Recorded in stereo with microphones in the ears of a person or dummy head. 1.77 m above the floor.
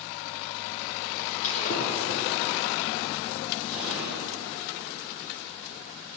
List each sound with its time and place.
1.4 s breaking glass: 40° left (ahead or behind), 5 m
3.7 s an explosion: 10° right (ahead or behind), 9 m